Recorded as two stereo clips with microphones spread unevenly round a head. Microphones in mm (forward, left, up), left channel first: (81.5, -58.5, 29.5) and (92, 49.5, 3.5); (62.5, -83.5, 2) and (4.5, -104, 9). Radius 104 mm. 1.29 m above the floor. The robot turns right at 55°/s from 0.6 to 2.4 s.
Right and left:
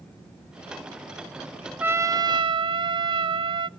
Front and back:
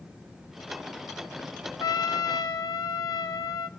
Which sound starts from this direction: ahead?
A trumpet, at 1.8 s.